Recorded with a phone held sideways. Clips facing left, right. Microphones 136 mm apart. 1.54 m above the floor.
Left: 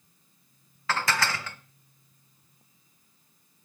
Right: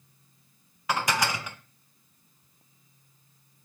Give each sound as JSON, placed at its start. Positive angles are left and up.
{"t": 0.9, "sound": "dishes clattering", "side_deg": -15, "distance_m": 0.6}